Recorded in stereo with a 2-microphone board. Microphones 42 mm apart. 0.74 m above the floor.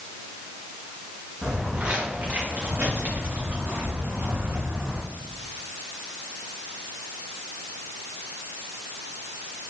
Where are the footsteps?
50° right (ahead or behind), 3.5 m; by 5.0 s 80° right, 4.5 m.